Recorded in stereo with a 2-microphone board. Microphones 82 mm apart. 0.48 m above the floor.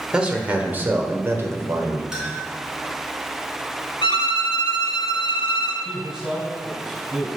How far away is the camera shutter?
I don't hear a camera shutter.